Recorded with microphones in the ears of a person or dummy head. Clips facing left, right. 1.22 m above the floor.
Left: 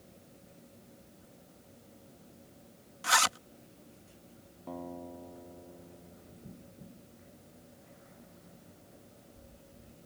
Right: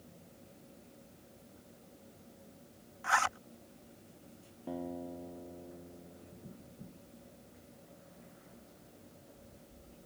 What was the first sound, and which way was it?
A zipper, 50° left (ahead or behind).